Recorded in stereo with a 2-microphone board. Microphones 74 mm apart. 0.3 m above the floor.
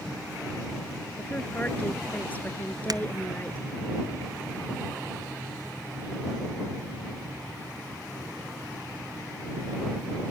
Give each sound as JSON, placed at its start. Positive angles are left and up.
{"t": 1.2, "sound": "a woman speaking", "side_deg": 20}
{"t": 2.9, "sound": "breaking glass", "side_deg": -60}